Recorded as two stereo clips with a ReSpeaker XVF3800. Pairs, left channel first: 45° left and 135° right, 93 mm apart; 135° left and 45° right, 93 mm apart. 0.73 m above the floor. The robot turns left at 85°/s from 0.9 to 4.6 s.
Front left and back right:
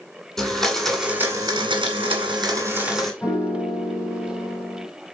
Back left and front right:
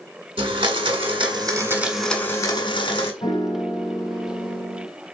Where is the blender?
40° right, 1.6 m; by 3.1 s 130° left, 1.6 m.